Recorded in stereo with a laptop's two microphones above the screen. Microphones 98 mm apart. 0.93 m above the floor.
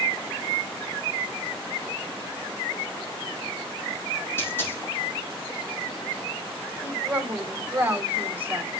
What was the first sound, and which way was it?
A dropped coin, 25° left (ahead or behind).